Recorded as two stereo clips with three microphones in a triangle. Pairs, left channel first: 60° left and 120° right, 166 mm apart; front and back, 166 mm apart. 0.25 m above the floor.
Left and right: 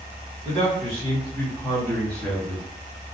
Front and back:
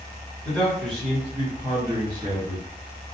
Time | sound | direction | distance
0.5 | a man speaking | 85° left | 1.8 m